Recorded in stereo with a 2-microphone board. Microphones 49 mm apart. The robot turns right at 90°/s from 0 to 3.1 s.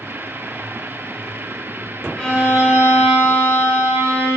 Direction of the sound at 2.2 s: 155° left.